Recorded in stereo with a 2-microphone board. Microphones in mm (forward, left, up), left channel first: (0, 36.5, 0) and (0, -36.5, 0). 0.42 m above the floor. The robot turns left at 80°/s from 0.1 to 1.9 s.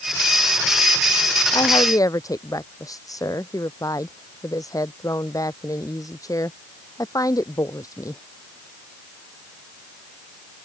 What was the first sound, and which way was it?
A woman speaking, 80° left.